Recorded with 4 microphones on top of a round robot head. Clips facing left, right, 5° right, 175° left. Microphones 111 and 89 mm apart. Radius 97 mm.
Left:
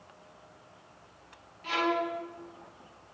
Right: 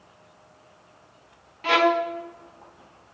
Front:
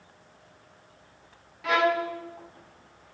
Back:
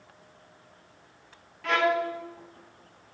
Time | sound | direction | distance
1.6 | a violin | 90° right | 1.6 m